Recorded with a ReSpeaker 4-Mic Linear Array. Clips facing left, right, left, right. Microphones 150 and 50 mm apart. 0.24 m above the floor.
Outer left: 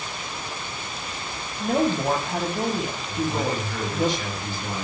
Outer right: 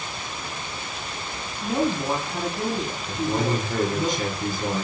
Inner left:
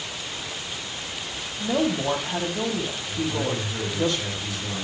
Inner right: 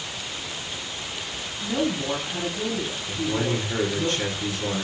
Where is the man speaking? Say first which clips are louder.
Outer right 2 dB, inner right 2 dB; 45° right (ahead or behind), 4 m.